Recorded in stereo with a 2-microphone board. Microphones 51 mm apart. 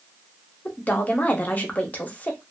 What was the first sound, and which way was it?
A woman speaking, 35° left (ahead or behind).